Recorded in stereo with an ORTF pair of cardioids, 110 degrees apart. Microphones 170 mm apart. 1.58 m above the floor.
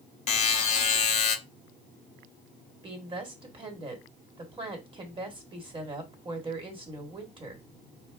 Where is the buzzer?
45° left, 0.7 m.